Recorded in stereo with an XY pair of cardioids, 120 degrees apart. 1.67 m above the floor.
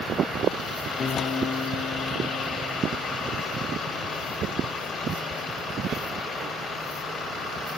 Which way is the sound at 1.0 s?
35° left.